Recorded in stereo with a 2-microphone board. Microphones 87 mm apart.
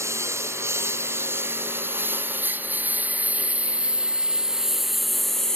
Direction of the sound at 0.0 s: 30° right (ahead or behind).